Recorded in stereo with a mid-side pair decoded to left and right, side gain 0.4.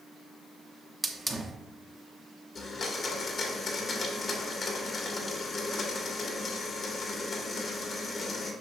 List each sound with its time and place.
1.0 s a hiss: 20° right, 0.9 m
2.5 s a blender: 55° left, 1.6 m